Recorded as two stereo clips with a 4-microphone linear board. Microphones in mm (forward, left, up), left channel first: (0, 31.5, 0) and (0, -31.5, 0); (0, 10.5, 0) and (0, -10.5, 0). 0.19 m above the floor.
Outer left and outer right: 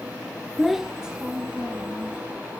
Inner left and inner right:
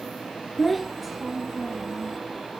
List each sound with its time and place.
0.6 s a child speaking: 5° left (ahead or behind), 0.6 m; by 2.2 s 20° right (ahead or behind), 1.4 m